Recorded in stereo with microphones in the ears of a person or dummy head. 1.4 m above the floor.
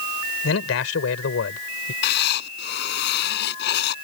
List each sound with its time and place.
0.4 s a man speaking: 70° left (ahead or behind)
2.0 s writing: 65° left (ahead or behind)